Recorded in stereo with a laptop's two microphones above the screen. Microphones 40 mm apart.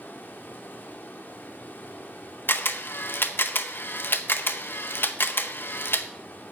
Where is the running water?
60° left (ahead or behind), 1.2 m.